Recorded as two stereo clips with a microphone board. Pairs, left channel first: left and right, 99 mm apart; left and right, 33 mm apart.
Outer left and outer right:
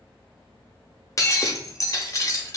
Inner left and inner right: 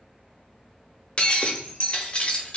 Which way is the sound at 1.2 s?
35° left (ahead or behind).